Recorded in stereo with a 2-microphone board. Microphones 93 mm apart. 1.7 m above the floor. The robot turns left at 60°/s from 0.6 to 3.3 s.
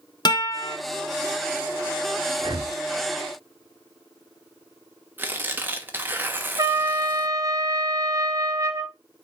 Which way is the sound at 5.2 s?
20° right (ahead or behind).